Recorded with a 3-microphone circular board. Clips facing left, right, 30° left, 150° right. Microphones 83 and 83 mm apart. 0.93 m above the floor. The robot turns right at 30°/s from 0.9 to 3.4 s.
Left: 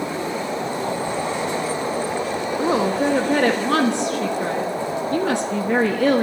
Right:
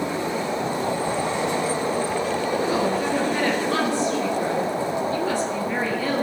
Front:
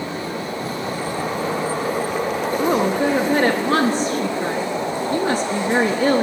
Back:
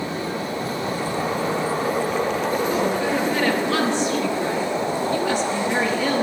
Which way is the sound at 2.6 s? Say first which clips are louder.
Left 7 dB, front 3 dB; 55° left.